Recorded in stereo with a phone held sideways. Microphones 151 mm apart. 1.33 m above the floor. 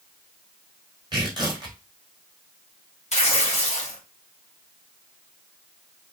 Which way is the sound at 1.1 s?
30° right (ahead or behind).